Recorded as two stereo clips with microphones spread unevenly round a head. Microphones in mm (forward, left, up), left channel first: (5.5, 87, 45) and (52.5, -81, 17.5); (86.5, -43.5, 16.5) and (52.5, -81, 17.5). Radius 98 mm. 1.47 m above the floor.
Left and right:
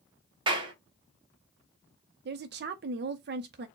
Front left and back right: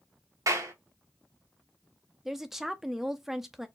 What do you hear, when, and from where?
0.5 s a clap: 140° right, 1.0 m
2.2 s a woman speaking: 45° right, 0.5 m